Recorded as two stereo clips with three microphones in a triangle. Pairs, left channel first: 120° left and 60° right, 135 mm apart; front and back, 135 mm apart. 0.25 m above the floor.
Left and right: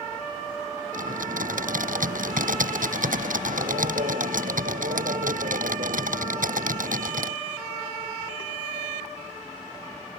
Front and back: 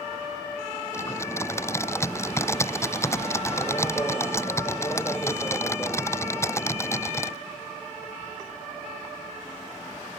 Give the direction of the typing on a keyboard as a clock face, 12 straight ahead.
2 o'clock.